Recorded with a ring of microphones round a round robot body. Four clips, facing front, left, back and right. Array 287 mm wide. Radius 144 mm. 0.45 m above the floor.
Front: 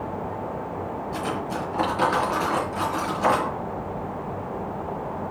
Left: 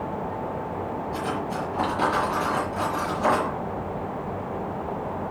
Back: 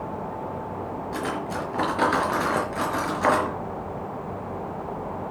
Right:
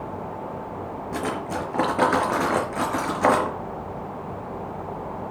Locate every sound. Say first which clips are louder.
1.1 s cutlery clinking: right 4 dB, even; 100° right, 5 m